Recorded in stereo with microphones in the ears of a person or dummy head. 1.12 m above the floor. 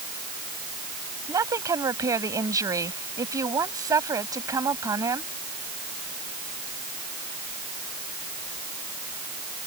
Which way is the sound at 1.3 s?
20° right (ahead or behind).